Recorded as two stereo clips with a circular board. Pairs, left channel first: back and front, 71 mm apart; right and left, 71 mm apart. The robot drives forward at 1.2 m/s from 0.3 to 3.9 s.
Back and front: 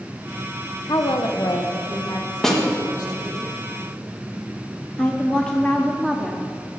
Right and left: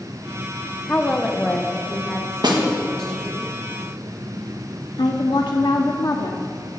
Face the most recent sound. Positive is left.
turn(degrees=-105)